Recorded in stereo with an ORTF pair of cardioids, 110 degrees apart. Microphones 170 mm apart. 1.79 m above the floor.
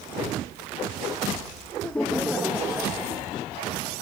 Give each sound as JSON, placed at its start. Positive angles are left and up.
{"t": 1.8, "sound": "laughter", "azimuth_deg": 10, "distance_m": 1.0}